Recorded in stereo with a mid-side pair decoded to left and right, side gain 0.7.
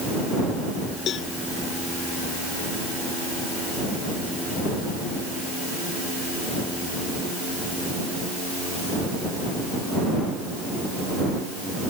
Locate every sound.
1.1 s a cowbell: 45° left